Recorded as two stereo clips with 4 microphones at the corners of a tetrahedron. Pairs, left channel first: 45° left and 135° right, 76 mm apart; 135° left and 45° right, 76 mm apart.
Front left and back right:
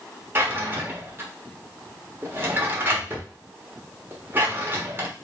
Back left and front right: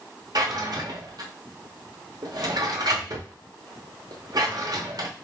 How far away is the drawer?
About 1.1 m.